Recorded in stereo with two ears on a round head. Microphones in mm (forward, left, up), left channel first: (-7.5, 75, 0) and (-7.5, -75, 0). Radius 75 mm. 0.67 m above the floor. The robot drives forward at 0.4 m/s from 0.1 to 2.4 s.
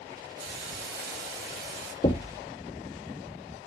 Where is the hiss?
70° right (ahead or behind), 4.5 m; by 1.9 s 65° right (ahead or behind), 5 m.